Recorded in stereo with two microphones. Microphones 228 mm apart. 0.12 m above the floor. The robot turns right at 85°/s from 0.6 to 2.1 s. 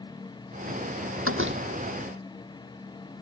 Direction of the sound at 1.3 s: 80° right.